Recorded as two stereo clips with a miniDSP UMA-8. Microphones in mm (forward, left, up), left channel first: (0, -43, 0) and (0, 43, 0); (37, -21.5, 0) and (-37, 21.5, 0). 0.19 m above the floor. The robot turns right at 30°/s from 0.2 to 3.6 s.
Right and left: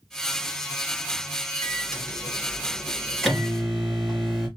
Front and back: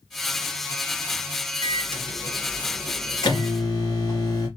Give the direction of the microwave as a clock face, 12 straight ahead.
2 o'clock.